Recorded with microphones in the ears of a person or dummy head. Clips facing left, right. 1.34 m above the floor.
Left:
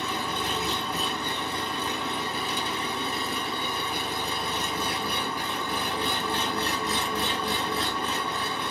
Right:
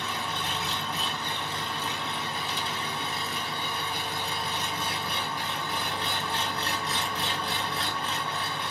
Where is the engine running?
55° left (ahead or behind), 1.1 m.